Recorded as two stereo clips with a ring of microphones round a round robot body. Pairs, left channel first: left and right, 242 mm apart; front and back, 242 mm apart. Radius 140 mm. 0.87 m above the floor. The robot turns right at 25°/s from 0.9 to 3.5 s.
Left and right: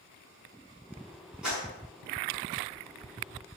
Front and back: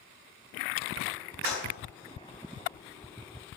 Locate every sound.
1.4 s a clap: 5° right, 7 m; by 1.6 s 5° left, 7 m